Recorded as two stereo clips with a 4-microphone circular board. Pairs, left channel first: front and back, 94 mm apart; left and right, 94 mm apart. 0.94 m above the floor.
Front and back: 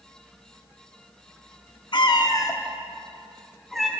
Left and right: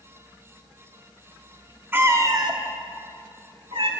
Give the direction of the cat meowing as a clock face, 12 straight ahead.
1 o'clock.